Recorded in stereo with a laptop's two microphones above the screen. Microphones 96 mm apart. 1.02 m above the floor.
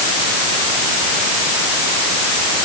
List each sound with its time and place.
Only background noise.